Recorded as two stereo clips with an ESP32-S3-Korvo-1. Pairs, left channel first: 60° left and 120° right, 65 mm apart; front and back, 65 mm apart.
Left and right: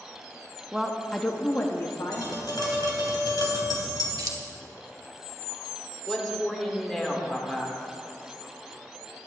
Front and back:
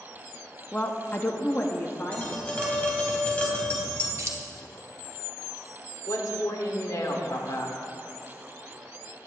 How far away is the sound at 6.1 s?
About 1.7 m.